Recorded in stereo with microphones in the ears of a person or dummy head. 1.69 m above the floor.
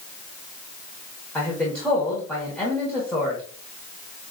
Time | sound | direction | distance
1.4 | a man speaking | 5° left (ahead or behind) | 1.4 m